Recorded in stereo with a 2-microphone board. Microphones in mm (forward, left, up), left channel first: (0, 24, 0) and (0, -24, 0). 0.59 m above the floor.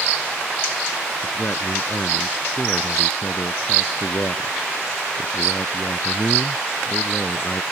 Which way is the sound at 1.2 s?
50° left (ahead or behind).